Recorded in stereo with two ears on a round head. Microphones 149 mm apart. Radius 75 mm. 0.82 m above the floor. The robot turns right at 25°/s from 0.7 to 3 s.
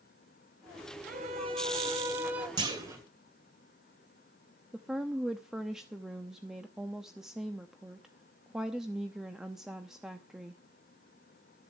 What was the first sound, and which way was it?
A violin, 40° right.